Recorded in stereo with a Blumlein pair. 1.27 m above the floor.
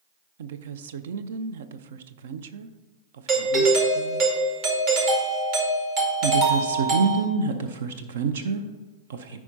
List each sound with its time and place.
0.4 s a woman speaking: 60° right, 0.6 m
3.3 s a doorbell: 40° right, 2 m
6.2 s a woman speaking: 60° right, 0.6 m